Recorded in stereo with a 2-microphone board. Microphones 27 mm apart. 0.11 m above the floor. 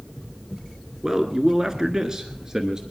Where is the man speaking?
25° right (ahead or behind), 1.1 m; by 2.8 s 20° right (ahead or behind), 1.4 m.